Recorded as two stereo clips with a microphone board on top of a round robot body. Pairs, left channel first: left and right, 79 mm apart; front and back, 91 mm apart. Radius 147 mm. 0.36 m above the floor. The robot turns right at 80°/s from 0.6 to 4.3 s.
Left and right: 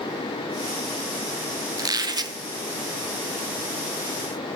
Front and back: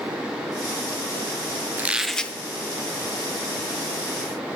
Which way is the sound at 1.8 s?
115° right.